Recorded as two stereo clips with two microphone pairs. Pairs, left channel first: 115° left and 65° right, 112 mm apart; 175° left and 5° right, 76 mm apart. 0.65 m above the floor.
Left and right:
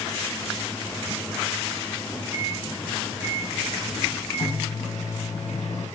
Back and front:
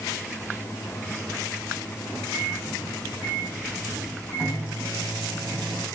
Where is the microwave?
70° left, 5 m.